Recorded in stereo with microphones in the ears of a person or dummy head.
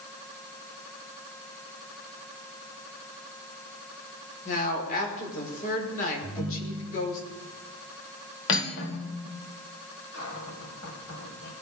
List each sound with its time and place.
4.5 s a woman speaking: 45° left (ahead or behind), 5 m
6.2 s a ringtone: 5° left (ahead or behind), 3.5 m
8.5 s cutlery clinking: 65° left (ahead or behind), 2.5 m
10.1 s a cupboard door: 60° left (ahead or behind), 5.5 m